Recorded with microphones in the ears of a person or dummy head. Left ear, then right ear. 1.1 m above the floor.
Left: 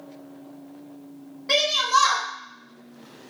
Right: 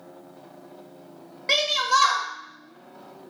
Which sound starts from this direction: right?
A shout, at 1.5 s.